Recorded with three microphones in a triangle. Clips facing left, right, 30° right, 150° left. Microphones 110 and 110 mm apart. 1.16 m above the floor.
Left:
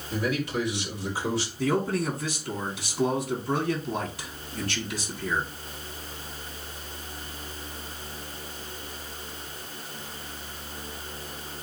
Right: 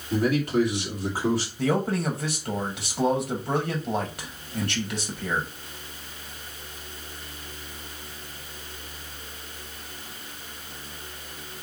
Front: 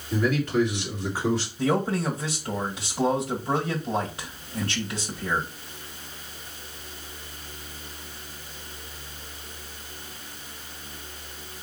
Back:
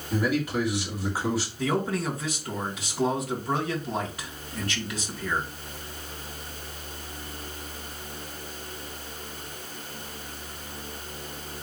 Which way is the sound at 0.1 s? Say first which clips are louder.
Right 5 dB, front 2 dB; 130° right.